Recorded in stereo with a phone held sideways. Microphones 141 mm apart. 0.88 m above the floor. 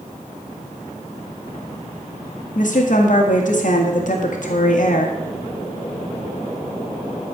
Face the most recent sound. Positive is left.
turn(degrees=65)  # may be behind; listen again after turning